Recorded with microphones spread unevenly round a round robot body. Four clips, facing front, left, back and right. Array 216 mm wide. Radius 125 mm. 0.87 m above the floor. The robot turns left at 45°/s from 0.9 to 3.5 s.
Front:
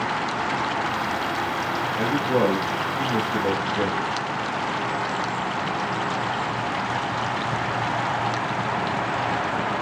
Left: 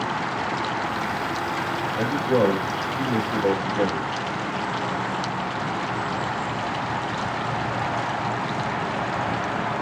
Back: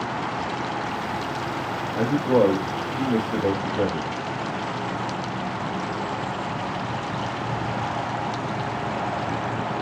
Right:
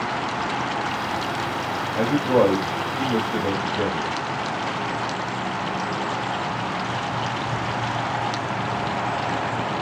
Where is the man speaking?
125° right, 3.5 m; by 4.1 s 165° left, 3.5 m.